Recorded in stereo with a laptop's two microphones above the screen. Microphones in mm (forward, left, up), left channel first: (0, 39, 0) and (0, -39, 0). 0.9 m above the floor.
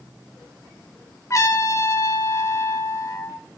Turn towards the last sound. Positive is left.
turn(degrees=45)  # may be behind; listen again after turning